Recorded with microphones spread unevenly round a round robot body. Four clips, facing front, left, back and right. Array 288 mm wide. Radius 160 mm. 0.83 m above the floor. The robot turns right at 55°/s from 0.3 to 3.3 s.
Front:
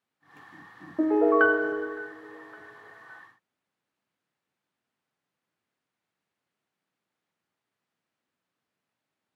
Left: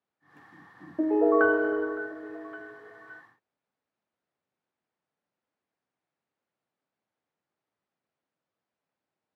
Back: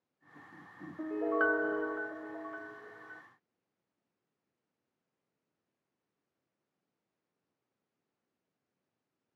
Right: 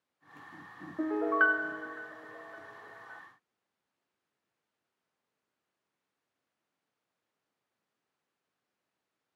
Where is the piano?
25° left; by 3.2 s 150° left.